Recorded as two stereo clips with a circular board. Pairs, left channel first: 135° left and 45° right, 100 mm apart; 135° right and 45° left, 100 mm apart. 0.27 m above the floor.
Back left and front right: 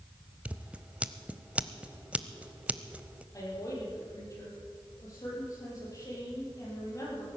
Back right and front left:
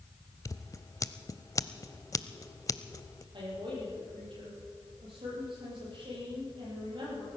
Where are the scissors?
110° right, 0.6 m.